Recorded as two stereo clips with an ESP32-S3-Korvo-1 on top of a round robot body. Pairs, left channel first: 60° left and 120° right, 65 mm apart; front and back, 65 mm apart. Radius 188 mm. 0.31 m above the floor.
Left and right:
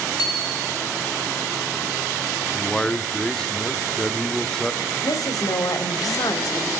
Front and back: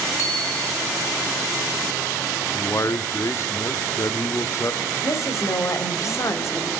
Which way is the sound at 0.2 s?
45° left.